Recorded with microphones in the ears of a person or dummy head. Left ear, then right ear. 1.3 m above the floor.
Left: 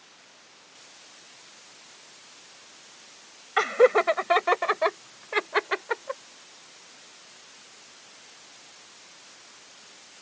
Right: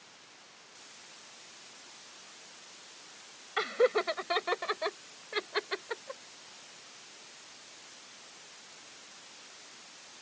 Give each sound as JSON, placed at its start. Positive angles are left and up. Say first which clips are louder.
{"t": 3.6, "sound": "laughter", "louder": "left 8 dB", "side_deg": 30}